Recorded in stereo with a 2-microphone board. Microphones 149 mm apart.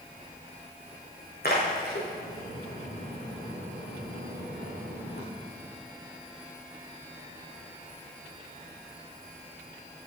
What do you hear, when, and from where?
1.4 s a splash: 85° left, 5 m